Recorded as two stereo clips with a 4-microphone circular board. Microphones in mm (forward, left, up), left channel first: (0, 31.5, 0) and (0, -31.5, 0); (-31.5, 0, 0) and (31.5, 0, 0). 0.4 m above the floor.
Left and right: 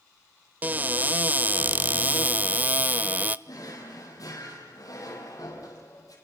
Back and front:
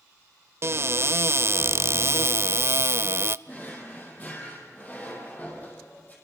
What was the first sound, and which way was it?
A cupboard door, 35° right.